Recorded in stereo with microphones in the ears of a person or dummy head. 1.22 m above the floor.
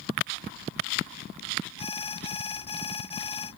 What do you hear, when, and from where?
1.8 s an alarm: 35° left (ahead or behind)